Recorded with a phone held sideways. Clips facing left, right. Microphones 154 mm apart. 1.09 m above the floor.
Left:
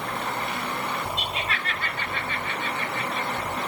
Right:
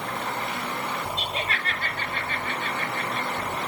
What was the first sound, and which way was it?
Laughter, 35° right (ahead or behind).